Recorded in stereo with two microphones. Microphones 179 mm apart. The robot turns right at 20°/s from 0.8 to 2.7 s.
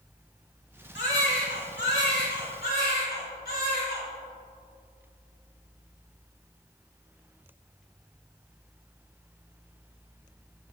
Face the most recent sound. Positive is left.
turn(degrees=120)